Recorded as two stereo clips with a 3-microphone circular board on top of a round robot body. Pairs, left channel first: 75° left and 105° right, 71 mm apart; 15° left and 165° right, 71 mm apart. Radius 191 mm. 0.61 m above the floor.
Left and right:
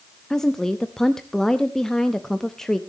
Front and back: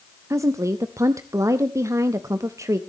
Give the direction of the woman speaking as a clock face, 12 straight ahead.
7 o'clock.